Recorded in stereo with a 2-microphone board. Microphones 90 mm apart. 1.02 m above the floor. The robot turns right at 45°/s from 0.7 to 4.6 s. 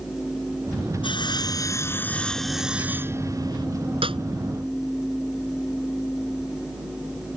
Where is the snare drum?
85° right; by 4.2 s 75° right (ahead or behind).